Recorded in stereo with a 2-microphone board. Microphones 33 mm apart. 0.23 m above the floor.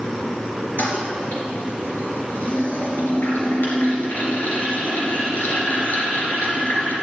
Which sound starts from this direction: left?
A toilet flushing, at 0.8 s.